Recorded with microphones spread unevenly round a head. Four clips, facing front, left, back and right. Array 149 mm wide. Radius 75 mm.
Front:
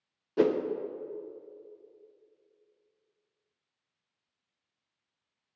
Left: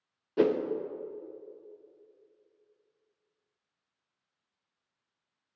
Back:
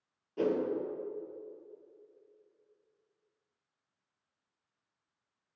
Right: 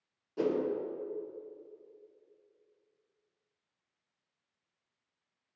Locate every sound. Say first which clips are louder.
0.4 s a whoosh: left 5 dB, front 5 dB; 35° left, 0.7 m